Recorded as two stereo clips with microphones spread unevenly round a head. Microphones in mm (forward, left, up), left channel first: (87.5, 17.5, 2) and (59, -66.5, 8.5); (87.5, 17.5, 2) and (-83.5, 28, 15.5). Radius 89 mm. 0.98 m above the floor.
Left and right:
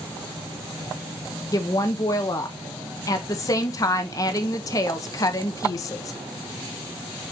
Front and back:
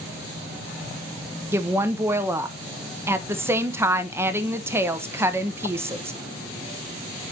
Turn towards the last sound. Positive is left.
turn(degrees=100)